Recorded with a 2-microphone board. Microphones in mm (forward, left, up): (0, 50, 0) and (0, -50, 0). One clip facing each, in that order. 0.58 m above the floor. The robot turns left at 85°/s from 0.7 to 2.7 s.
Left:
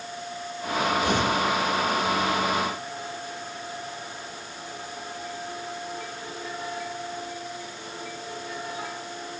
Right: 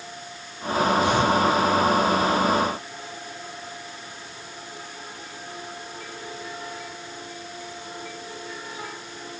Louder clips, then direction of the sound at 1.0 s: Right 3 dB; 45° left (ahead or behind).